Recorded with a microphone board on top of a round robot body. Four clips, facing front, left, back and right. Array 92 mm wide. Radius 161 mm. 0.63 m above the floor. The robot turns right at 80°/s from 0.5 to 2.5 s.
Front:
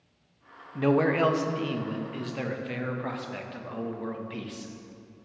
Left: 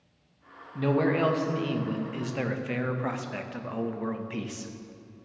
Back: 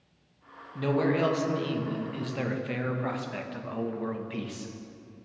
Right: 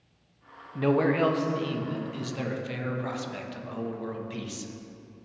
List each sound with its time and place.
0.8 s a man speaking: 35° right, 0.9 m; by 4.7 s 105° left, 0.9 m